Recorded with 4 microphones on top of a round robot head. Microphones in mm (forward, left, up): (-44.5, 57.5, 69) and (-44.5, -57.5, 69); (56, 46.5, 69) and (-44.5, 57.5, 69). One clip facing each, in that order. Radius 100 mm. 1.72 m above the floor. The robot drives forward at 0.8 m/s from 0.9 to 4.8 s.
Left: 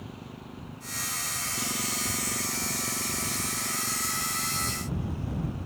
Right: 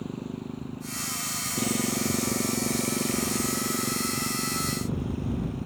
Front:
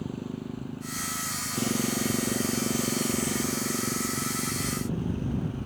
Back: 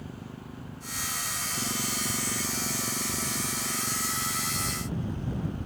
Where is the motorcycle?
40° right; by 5.7 s 50° right.